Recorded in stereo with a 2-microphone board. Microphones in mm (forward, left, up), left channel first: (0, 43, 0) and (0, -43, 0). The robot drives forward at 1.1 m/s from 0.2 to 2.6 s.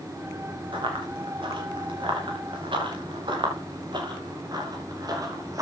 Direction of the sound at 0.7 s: 80° right.